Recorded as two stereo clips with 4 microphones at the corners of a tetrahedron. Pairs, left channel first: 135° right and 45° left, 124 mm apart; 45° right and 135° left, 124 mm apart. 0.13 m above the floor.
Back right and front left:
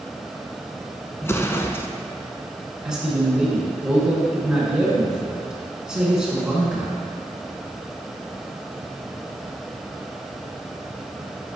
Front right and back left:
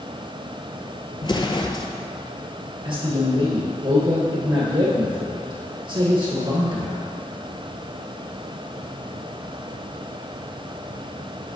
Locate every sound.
1.2 s an explosion: 70° right, 0.6 m
2.9 s a man speaking: 125° left, 1.8 m